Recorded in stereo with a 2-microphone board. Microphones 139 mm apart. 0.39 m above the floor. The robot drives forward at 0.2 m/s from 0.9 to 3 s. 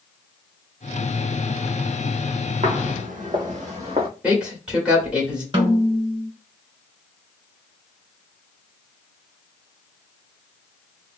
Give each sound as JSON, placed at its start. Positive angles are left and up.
{"t": 2.6, "sound": "footsteps", "side_deg": -65, "distance_m": 1.2}
{"t": 4.2, "sound": "a man speaking", "side_deg": -10, "distance_m": 1.6}
{"t": 5.5, "sound": "a snare drum", "side_deg": -40, "distance_m": 1.7}